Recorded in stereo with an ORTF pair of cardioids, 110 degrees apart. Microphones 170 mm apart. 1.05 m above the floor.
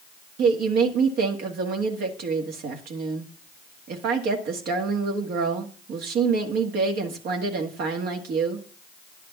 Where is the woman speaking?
70° right, 1.9 m.